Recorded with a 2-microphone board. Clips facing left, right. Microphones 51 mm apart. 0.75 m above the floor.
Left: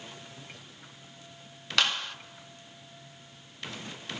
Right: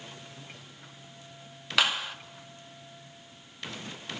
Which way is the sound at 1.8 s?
10° right (ahead or behind).